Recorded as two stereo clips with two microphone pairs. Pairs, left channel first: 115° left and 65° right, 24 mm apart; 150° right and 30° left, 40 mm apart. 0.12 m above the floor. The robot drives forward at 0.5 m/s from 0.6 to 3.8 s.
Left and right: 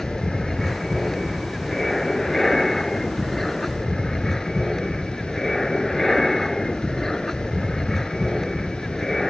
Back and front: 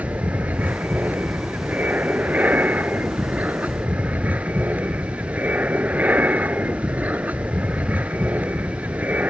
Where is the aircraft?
40° left; by 9.3 s 45° left.